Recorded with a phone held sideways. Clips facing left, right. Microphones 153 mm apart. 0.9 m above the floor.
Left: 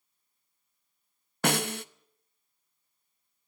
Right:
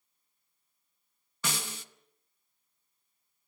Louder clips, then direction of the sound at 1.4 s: Left 11 dB; 65° left (ahead or behind).